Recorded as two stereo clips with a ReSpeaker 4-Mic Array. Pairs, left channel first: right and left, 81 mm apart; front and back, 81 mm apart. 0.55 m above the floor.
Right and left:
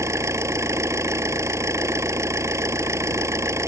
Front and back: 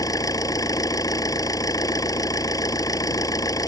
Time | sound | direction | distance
0.0 | an engine running | 40° left | ?